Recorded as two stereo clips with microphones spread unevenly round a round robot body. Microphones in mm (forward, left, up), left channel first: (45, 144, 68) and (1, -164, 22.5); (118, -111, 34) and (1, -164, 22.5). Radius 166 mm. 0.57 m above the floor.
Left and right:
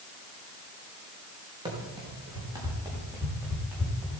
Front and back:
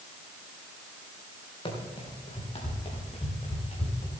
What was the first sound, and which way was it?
Running footsteps, 20° right.